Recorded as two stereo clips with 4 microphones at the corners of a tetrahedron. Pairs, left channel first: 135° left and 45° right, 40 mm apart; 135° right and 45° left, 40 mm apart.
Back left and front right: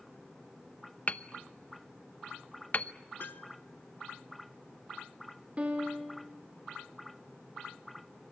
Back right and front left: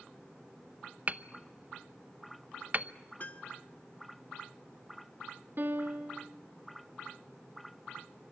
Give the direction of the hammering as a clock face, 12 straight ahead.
9 o'clock.